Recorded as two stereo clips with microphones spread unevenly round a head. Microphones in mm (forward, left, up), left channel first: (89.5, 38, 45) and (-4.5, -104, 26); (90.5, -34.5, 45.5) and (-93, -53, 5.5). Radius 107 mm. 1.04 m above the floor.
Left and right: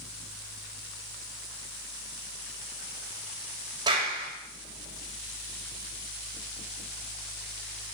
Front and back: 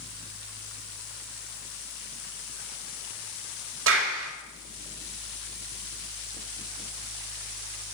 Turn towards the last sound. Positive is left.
turn(degrees=165)